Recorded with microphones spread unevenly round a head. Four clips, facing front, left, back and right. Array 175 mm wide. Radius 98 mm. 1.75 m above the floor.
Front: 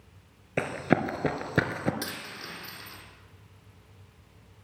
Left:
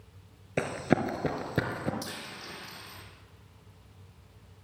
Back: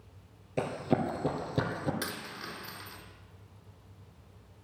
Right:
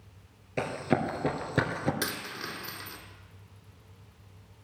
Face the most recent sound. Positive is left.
turn(degrees=-85)